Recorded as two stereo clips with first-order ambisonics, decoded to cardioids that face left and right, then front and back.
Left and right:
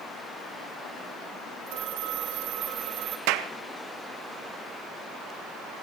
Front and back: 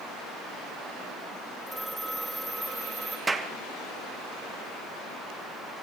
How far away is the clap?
About 1.2 m.